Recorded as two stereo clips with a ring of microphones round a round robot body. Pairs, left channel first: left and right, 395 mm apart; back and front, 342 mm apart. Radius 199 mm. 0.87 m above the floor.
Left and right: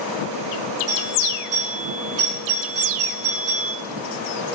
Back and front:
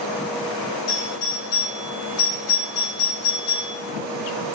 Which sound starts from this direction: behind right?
A doorbell, at 0.9 s.